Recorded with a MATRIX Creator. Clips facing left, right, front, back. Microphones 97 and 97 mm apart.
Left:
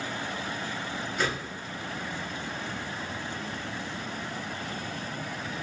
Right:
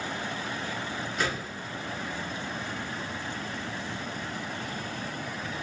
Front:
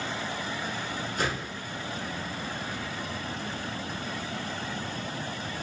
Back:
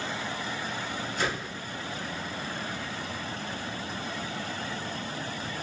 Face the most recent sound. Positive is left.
turn(degrees=5)